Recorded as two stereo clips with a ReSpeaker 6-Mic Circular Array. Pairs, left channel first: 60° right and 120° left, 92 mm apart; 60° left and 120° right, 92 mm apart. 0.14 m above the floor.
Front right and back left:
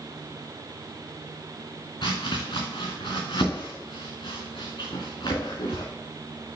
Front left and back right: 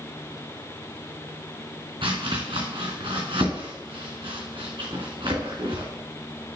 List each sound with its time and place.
2.0 s chopping: 95° right, 3.5 m